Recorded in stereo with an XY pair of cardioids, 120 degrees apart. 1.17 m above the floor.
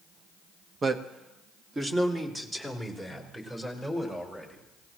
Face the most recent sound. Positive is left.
turn(degrees=-15)